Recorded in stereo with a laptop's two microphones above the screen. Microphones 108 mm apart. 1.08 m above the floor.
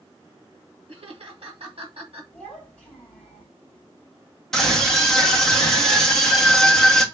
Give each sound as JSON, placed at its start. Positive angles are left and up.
{"t": 0.9, "sound": "laughter", "side_deg": -60, "distance_m": 1.4}
{"t": 2.3, "sound": "a child speaking", "side_deg": 15, "distance_m": 3.0}
{"t": 4.5, "sound": "a scream", "side_deg": 5, "distance_m": 1.2}